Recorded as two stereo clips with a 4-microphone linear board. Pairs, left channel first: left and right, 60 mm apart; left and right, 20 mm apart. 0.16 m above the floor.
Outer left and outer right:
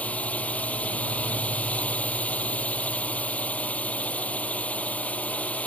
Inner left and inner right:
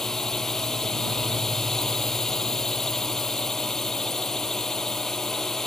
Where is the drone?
25° left (ahead or behind).